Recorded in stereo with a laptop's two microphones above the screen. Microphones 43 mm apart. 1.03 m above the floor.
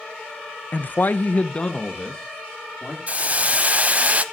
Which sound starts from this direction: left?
A man speaking, at 0.7 s.